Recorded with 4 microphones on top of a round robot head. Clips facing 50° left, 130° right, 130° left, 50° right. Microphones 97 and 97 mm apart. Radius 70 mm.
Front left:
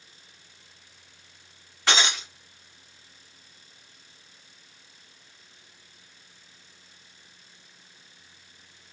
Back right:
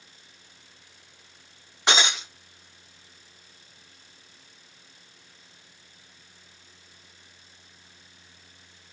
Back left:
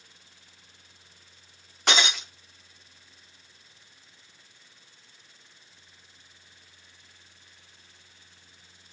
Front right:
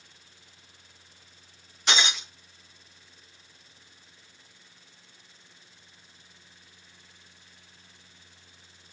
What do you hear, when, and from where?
1.9 s breaking glass: 165° left, 0.9 m